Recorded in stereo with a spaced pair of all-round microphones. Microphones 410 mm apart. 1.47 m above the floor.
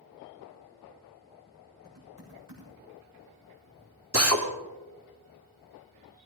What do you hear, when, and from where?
1.8 s typing on a keyboard: 50° right (ahead or behind), 7 m
4.1 s a drill: 35° right (ahead or behind), 1.8 m